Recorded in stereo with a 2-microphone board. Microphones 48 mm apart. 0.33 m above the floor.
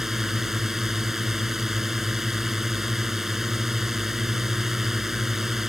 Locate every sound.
0.0 s a drone: 5° right (ahead or behind)